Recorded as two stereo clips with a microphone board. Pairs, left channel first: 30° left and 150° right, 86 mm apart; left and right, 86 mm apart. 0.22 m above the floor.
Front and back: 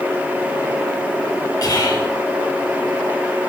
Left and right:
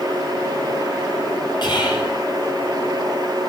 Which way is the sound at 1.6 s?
70° left.